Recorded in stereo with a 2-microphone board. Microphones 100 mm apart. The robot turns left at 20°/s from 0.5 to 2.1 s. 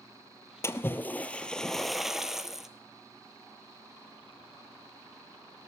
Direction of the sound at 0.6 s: 25° left (ahead or behind).